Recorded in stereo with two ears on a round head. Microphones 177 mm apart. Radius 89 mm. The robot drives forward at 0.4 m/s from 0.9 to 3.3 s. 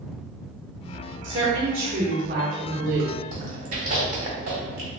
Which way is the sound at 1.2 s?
40° right (ahead or behind).